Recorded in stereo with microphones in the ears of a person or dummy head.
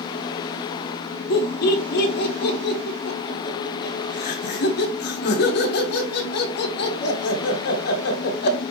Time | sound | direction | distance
1.3 | laughter | 55° left (ahead or behind) | 2.5 m